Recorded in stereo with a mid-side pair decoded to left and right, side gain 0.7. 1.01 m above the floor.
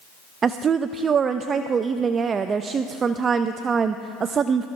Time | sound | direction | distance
0.4 | a woman speaking | 30° right | 0.6 m